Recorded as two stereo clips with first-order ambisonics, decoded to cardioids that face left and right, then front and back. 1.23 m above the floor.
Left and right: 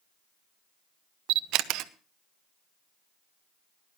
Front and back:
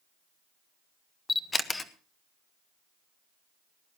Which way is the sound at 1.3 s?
75° right.